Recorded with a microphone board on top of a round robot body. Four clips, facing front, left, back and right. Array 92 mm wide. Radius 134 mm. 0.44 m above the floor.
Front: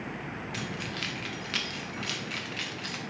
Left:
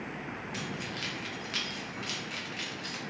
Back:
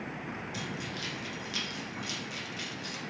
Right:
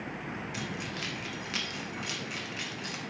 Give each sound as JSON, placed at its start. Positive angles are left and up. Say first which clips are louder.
{"t": 0.5, "sound": "keys jangling", "louder": "right 1 dB, front 2 dB", "azimuth_deg": -10, "distance_m": 0.8}